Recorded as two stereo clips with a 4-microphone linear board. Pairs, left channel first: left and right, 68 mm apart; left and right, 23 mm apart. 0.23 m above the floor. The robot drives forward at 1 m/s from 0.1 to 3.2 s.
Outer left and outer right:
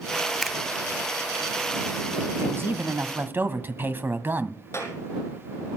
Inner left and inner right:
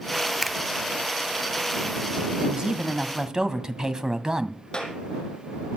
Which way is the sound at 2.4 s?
35° right (ahead or behind).